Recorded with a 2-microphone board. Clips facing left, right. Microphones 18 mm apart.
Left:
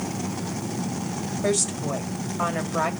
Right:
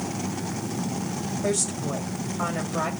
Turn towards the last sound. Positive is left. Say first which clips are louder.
# left 3 dB
turn(degrees=15)  # may be behind; listen again after turning